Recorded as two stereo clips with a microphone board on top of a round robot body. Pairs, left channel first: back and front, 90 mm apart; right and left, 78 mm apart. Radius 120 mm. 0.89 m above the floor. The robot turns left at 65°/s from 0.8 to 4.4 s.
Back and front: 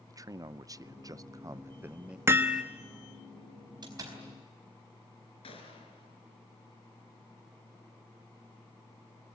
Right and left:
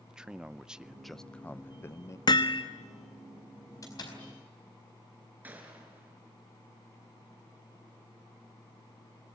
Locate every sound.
0.1 s a man speaking: 15° left, 0.7 m; by 2.2 s 75° right, 0.7 m
2.3 s hammering: 60° right, 1.3 m; by 2.6 s 85° right, 1.3 m
3.8 s a door slam: 40° right, 4.5 m; by 4.2 s 65° right, 4.5 m
5.4 s a gunshot: 160° left, 4 m